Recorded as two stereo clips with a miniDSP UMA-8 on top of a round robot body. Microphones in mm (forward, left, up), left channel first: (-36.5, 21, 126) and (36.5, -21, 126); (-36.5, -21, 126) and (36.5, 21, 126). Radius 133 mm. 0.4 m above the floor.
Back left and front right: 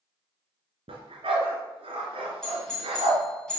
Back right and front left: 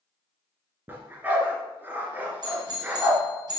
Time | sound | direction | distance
0.9 | a dog barking | 40° right | 2.5 m
2.4 | a doorbell | 70° left | 5.5 m